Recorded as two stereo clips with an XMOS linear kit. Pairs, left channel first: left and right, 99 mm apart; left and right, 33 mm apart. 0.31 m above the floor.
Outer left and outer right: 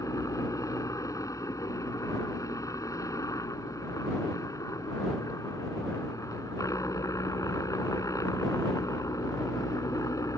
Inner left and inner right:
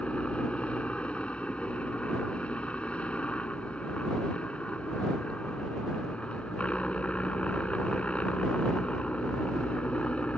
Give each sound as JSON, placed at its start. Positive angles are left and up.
{"t": 0.0, "sound": "a helicopter", "side_deg": 35}